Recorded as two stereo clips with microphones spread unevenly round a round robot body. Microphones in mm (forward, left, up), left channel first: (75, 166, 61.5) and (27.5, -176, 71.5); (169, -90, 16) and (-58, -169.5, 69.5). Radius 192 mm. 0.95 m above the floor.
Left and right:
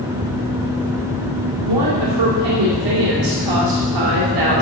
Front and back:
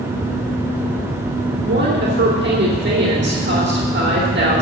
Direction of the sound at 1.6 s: 120° right.